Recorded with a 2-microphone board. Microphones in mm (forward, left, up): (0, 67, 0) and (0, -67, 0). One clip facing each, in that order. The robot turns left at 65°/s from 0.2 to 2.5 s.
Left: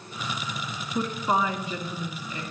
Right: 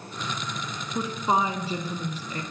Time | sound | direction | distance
0.9 | a woman speaking | 5° right | 1.3 m